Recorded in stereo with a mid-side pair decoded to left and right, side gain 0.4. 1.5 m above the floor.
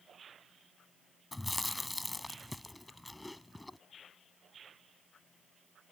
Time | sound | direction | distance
1.3 | chewing | 10° left | ?